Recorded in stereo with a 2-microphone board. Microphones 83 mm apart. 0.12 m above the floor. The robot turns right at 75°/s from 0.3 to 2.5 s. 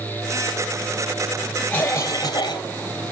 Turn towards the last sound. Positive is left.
turn(degrees=75)